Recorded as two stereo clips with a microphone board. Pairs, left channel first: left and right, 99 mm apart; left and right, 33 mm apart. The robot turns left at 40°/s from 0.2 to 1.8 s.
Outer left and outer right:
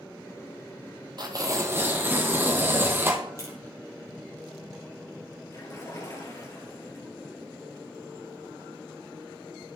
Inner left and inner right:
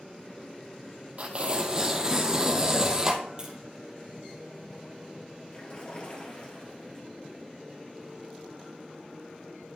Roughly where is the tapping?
Right.